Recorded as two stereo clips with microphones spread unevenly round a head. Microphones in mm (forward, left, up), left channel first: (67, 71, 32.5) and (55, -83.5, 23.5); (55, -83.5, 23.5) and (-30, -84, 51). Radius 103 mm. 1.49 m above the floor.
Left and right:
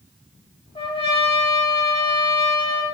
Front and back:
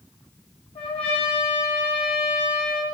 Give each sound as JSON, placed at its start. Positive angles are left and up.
{"t": 0.8, "sound": "a trumpet", "azimuth_deg": 30, "distance_m": 3.0}